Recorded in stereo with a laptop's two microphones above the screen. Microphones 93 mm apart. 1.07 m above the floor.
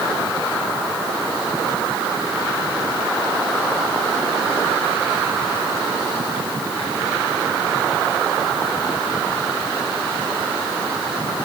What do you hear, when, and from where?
Only background noise.